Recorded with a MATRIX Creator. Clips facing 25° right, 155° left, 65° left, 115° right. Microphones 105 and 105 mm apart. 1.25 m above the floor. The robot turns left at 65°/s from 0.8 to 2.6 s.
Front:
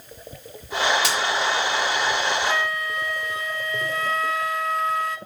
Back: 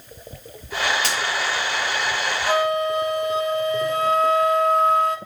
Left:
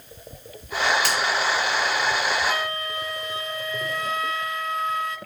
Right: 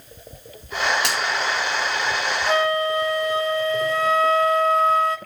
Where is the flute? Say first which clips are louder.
Back 6 dB, right 8 dB; 160° right, 2.5 m; by 5.2 s 170° right, 2.5 m.